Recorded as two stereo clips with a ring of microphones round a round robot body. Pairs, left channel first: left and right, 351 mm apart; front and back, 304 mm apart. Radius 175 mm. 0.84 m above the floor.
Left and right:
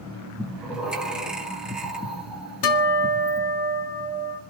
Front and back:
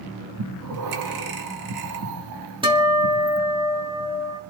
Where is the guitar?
105° left, 3 m.